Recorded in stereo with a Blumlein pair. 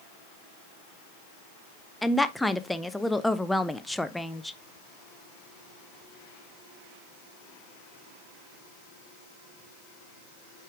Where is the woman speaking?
5° left, 0.6 m.